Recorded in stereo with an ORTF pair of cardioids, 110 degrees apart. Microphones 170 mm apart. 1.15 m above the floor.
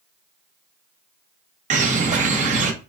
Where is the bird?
45° right, 1.3 m.